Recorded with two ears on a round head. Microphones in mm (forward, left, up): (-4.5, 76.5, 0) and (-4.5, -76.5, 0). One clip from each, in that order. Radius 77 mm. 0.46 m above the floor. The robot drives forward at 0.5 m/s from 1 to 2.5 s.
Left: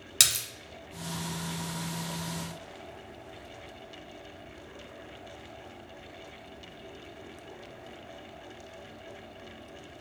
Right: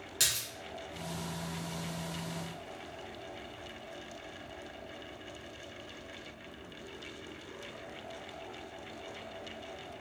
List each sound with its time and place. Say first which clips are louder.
0.2 s a splash: left 6 dB; 60° left (ahead or behind), 0.9 m